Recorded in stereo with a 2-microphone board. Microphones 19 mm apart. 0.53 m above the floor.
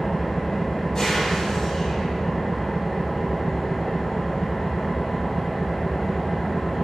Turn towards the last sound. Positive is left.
turn(degrees=20)  # may be behind; listen again after turning